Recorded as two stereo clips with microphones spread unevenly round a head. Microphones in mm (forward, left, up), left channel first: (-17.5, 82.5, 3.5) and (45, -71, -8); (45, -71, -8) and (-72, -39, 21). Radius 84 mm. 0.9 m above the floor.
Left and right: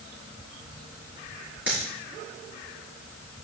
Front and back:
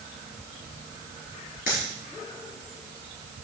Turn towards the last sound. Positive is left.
turn(degrees=15)